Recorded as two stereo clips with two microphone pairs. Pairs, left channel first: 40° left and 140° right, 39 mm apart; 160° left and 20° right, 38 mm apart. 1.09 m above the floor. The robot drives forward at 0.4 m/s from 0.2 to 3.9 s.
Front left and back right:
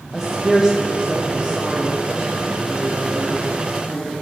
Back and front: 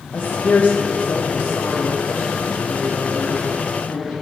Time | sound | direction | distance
0.1 | a woman speaking | 130° left | 0.8 m